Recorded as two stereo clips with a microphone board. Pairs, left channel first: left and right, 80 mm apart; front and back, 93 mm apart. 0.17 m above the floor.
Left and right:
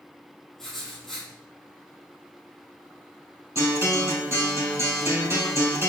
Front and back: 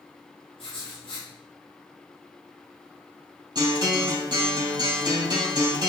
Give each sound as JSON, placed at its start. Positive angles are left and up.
{"t": 0.6, "sound": "writing", "azimuth_deg": 5, "distance_m": 3.5}
{"t": 3.5, "sound": "a guitar", "azimuth_deg": -140, "distance_m": 3.0}